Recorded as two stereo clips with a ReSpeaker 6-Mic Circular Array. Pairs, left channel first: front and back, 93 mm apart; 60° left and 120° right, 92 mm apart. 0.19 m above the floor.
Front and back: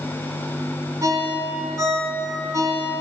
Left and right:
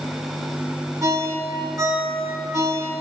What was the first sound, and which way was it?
A ringtone, 150° right.